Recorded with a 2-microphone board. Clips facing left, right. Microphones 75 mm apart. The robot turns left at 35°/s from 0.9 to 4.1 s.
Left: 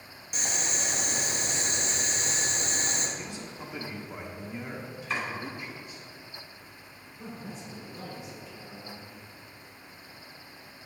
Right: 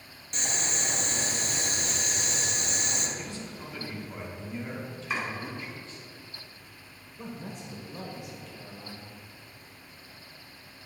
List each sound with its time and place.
0.3 s boiling: 170° left, 1.0 m; by 3.1 s 90° left, 1.0 m
3.2 s a man speaking: 20° left (ahead or behind), 1.0 m; by 6.1 s 15° left (ahead or behind), 1.0 m
5.1 s chopping: 10° right (ahead or behind), 2.5 m
7.2 s a man speaking: 60° right (ahead or behind), 1.6 m